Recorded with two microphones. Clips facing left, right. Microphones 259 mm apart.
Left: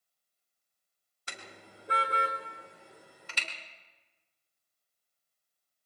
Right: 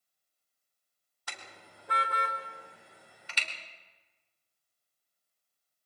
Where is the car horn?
25° left (ahead or behind), 2 m; by 3.5 s 55° left (ahead or behind), 2 m.